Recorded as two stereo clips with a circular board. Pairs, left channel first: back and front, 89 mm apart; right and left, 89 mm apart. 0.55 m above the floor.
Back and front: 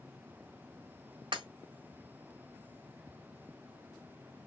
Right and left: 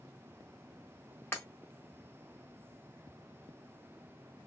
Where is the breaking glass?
25° right, 1.4 m.